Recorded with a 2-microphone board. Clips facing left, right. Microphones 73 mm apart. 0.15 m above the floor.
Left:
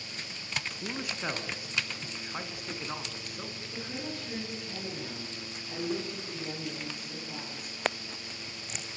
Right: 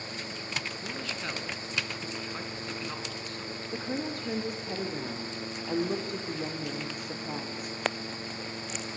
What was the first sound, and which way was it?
A man speaking, 15° left (ahead or behind).